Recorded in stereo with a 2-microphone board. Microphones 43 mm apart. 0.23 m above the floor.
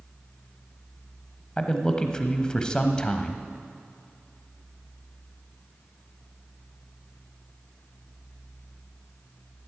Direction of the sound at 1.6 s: 20° left (ahead or behind).